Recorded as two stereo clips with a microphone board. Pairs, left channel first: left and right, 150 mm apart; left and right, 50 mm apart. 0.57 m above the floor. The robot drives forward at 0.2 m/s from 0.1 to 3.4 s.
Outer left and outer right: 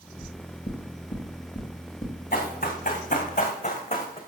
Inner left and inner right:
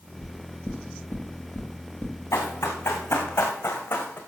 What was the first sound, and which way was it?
Knocking, 50° left (ahead or behind).